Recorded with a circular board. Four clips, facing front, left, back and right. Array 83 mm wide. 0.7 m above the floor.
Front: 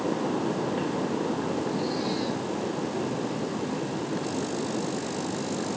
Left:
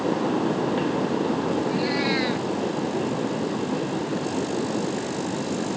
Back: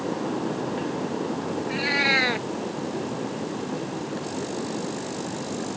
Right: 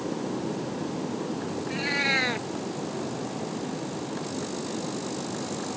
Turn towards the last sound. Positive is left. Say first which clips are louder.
# left 5 dB, back 3 dB
turn(degrees=-160)